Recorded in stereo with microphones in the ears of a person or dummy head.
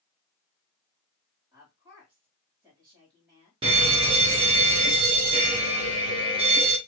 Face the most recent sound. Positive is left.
turn(degrees=-20)  # may be behind; listen again after turning